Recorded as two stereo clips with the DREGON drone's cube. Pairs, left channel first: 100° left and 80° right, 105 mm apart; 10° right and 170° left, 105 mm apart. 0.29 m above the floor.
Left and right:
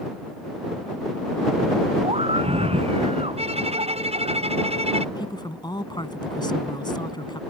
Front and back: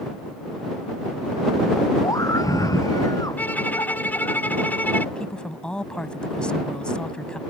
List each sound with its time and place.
2.0 s a scream: 65° right
3.4 s a violin: 85° right
5.2 s a woman speaking: 70° left